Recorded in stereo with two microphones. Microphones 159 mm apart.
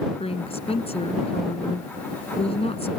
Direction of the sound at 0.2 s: 40° left (ahead or behind).